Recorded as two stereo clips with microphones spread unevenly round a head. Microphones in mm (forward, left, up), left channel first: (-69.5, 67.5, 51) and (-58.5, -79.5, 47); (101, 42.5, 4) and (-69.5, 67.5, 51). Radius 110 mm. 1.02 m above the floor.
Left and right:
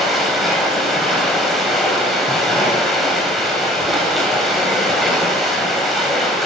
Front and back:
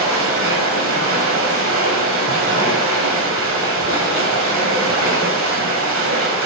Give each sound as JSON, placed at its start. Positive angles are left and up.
{"t": 0.0, "sound": "running water", "azimuth_deg": -175, "distance_m": 3.0}